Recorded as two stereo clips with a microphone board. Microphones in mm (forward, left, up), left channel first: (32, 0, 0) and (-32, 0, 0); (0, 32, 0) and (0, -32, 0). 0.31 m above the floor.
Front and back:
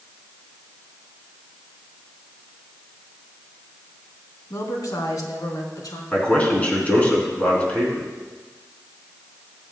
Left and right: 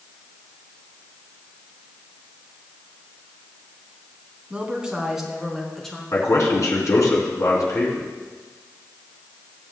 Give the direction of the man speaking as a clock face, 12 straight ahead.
10 o'clock.